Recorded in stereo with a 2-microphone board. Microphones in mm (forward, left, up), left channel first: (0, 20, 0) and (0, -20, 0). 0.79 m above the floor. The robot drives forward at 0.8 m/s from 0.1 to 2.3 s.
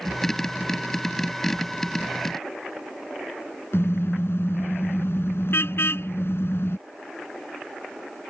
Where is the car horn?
75° left (ahead or behind).